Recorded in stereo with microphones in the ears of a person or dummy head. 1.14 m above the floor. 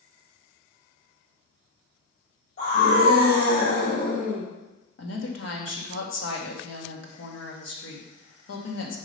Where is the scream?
55° left (ahead or behind), 3.5 m; by 4.5 s 45° left (ahead or behind), 1.6 m.